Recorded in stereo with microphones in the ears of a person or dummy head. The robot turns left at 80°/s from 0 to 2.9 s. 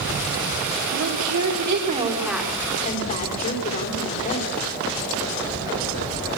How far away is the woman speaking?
About 4.5 m.